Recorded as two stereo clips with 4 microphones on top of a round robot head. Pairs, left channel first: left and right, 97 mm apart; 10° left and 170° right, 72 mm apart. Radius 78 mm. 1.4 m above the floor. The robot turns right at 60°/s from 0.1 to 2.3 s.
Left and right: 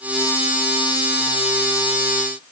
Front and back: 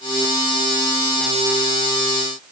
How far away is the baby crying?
I don't hear a baby crying.